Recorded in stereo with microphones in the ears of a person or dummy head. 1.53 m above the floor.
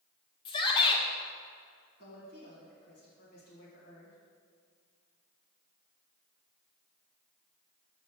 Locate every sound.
0.5 s a shout: 30° left (ahead or behind), 1.1 m
2.0 s a woman speaking: 50° left (ahead or behind), 2 m